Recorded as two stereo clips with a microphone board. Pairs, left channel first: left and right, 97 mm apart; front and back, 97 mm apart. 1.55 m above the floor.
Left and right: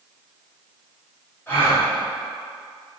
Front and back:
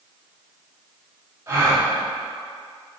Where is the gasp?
145° left, 1.2 m.